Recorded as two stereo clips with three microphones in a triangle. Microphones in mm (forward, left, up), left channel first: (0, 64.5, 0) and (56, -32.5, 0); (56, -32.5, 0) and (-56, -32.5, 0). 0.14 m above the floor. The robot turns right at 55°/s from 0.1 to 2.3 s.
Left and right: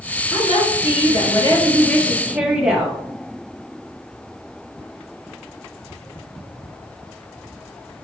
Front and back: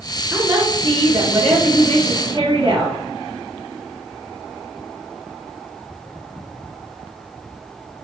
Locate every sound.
0.3 s a woman speaking: 110° left, 2.5 m; by 3.0 s 145° right, 2.5 m